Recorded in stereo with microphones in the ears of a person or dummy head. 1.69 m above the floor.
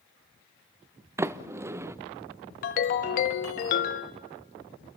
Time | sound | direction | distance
1.2 | a sliding door | 15° right (ahead or behind) | 0.5 m
2.6 | a ringtone | 45° left (ahead or behind) | 0.9 m